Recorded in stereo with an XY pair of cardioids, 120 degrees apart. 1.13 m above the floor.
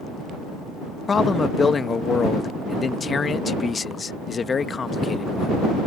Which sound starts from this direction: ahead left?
A man speaking, at 1.1 s.